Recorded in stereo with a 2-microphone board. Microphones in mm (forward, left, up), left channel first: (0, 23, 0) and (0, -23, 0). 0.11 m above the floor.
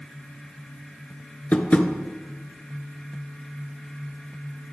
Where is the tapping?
35° left (ahead or behind), 1.3 m.